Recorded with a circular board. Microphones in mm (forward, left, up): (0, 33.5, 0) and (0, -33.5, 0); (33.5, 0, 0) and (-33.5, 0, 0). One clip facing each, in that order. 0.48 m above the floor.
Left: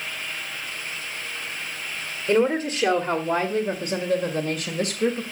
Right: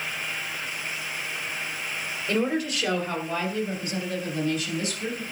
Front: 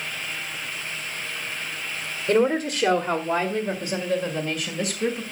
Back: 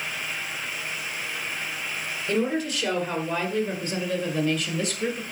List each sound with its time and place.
2.3 s a woman speaking: 45° left, 1.8 m; by 5.2 s 90° left, 2.5 m